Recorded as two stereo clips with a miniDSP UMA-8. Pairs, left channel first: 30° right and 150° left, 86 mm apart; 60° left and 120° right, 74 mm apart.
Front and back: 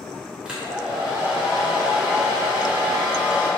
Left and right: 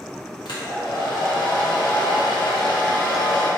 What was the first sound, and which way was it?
A hair dryer, 70° left.